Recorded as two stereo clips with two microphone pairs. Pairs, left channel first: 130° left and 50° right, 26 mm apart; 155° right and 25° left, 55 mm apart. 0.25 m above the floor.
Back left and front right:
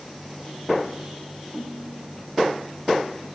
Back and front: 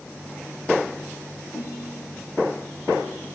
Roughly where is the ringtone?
Behind right.